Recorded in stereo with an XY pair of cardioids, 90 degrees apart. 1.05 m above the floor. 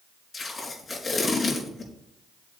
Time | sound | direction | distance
0.3 | tape being pulled | 35° left | 4 m